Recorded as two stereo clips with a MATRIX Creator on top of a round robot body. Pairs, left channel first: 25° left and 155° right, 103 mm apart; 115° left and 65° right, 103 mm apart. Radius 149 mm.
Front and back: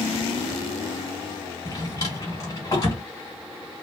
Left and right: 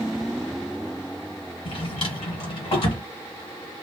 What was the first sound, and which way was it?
A drawer, 80° left.